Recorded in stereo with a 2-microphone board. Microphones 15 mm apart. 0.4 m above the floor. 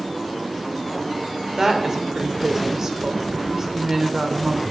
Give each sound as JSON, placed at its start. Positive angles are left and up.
{"t": 1.6, "sound": "a woman speaking", "side_deg": -30, "distance_m": 0.8}